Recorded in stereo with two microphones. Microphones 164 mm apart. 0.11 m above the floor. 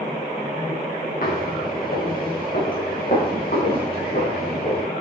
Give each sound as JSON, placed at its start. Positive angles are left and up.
{"t": 1.2, "sound": "footsteps", "side_deg": 65, "distance_m": 4.5}